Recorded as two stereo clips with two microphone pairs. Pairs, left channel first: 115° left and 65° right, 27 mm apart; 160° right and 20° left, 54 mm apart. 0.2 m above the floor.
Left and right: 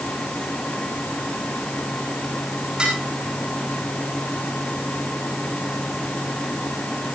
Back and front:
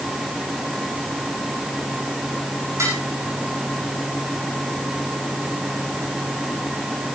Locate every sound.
2.8 s dishes clattering: 10° right, 10 m